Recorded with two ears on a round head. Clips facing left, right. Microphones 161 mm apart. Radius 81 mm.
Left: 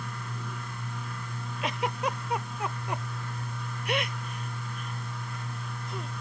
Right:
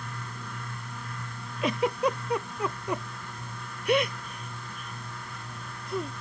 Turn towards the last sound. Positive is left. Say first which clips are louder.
# right 5 dB
turn(degrees=-80)